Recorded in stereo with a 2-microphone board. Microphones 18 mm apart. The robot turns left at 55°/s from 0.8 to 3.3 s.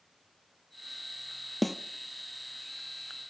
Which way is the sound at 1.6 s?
5° left (ahead or behind).